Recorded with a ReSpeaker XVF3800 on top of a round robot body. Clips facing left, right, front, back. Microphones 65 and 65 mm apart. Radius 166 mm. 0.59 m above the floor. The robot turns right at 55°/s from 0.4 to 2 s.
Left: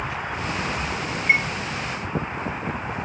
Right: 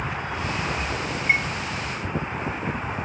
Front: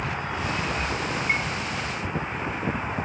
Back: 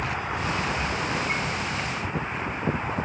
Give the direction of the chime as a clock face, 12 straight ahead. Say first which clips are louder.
Left 2 dB, front 2 dB; 11 o'clock.